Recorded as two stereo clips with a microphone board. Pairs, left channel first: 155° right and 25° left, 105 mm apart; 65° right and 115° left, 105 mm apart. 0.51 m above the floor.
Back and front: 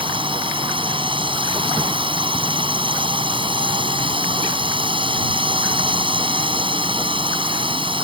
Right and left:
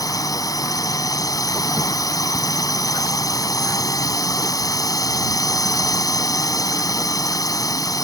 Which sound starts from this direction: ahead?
A drone, at 0.0 s.